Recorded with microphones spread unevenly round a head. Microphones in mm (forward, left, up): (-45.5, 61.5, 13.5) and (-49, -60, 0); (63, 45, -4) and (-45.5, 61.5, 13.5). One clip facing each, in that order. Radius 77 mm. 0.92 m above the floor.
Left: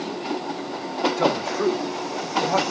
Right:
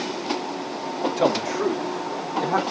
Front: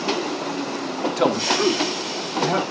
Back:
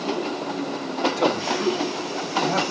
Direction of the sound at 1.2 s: 20° right.